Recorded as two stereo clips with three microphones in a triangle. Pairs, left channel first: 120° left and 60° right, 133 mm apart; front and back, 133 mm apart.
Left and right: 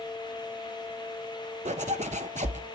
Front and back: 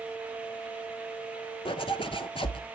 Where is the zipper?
45° right, 0.5 m.